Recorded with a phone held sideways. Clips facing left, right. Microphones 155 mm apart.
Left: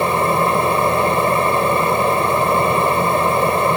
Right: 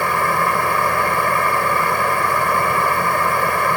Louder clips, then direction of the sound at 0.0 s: Left 3 dB; 25° left (ahead or behind).